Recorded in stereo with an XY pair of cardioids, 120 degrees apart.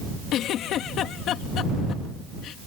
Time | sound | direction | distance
0.3 | a giggle | 70° left | ?